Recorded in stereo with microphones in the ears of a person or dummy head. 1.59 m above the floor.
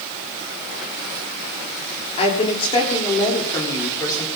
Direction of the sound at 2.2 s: 35° left (ahead or behind).